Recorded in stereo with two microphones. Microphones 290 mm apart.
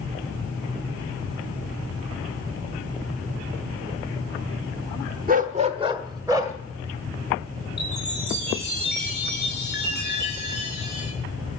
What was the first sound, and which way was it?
A dog barking, 30° right (ahead or behind).